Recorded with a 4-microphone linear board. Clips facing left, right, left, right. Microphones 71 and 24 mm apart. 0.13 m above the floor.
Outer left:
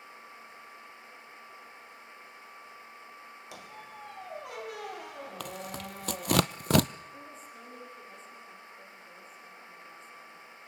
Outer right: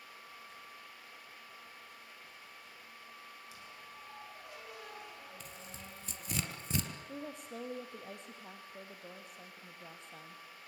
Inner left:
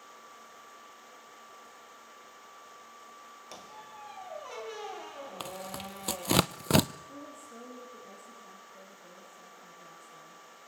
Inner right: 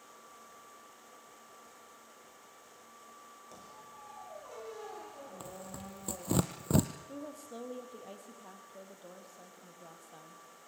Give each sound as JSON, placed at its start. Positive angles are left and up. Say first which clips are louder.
{"t": 3.5, "sound": "a squeak", "louder": "outer left 6 dB, inner left 6 dB", "side_deg": 70, "distance_m": 1.9}
{"t": 5.4, "sound": "tearing paper", "louder": "outer left 11 dB, inner left 7 dB", "side_deg": 80, "distance_m": 0.6}
{"t": 7.1, "sound": "a woman speaking", "louder": "outer right 3 dB, inner right 1 dB", "side_deg": -65, "distance_m": 4.5}